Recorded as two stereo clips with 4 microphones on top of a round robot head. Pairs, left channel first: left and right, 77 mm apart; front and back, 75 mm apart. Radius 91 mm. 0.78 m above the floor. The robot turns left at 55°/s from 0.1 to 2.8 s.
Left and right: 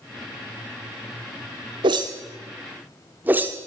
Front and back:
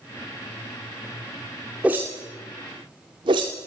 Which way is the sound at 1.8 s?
105° right.